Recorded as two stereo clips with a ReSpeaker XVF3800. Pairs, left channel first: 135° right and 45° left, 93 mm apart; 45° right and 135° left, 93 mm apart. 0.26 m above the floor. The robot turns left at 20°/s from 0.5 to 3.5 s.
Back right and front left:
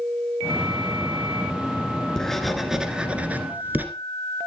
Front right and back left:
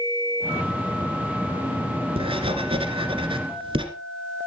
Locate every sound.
2.2 s writing: 140° left, 1.4 m; by 3.9 s 115° left, 1.4 m